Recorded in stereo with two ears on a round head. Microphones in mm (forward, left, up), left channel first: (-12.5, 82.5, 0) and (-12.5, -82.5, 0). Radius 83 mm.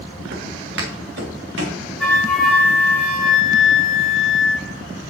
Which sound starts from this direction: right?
Footsteps, at 0.3 s.